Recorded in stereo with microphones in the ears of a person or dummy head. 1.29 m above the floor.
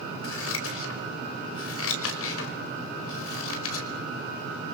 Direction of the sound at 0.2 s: 85° left.